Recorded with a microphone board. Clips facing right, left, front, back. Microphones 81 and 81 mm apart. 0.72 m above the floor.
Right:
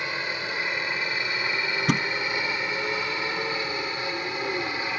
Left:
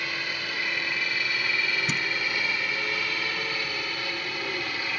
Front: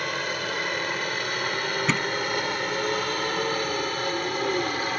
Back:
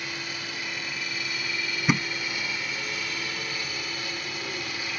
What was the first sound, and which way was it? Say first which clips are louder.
A helicopter: right 2 dB, front 7 dB; 25° right.